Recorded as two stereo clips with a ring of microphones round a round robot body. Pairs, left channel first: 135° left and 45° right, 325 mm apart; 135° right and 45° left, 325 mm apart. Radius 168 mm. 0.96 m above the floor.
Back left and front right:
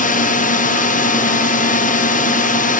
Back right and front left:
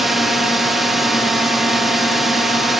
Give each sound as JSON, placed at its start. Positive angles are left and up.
{"t": 0.0, "sound": "a drone", "azimuth_deg": 135}